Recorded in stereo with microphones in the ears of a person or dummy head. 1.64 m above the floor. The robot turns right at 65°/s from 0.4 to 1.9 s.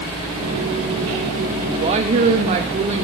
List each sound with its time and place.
1.7 s a woman speaking: 20° right (ahead or behind), 0.8 m; by 3.0 s 35° right (ahead or behind), 0.8 m